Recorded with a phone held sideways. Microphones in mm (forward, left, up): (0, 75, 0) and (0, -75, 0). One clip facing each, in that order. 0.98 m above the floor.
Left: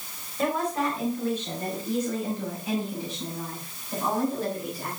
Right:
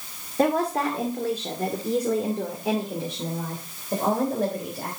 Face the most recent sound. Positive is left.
turn(degrees=-55)  # may be behind; listen again after turning